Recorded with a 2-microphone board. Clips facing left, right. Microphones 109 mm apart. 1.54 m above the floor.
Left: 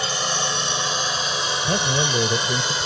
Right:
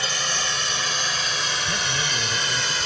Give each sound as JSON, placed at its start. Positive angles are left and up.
{"t": 0.0, "sound": "a drone", "side_deg": 25}
{"t": 1.6, "sound": "a man speaking", "side_deg": 50}